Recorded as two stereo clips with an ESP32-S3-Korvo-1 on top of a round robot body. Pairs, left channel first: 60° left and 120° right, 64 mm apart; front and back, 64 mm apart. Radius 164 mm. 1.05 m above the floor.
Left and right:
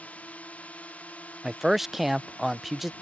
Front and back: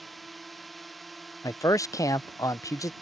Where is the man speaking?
35° right.